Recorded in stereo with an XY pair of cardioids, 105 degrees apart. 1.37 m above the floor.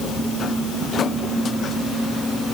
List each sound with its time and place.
Only background noise.